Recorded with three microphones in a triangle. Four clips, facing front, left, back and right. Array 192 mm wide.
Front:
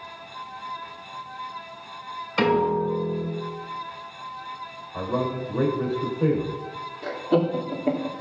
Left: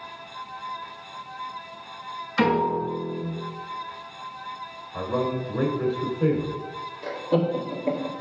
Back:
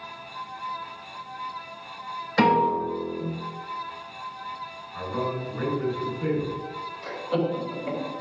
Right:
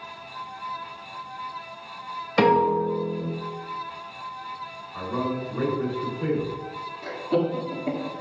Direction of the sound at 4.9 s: 30° left.